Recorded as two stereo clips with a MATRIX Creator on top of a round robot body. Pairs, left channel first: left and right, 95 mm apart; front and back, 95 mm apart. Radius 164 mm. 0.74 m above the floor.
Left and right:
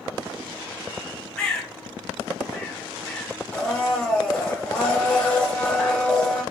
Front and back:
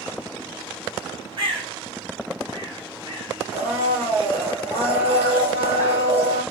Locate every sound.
1.4 s a bird: 170° left, 1.8 m
3.5 s a blender: 170° left, 1.8 m